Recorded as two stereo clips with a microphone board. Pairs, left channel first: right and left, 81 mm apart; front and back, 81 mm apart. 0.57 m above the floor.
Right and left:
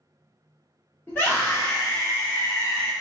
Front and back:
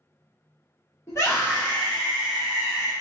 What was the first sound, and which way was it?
A scream, 30° right.